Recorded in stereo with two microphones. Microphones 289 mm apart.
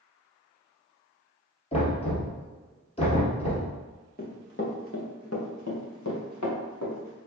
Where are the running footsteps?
30° left (ahead or behind), 1.4 m; by 7.2 s 85° left, 2.5 m.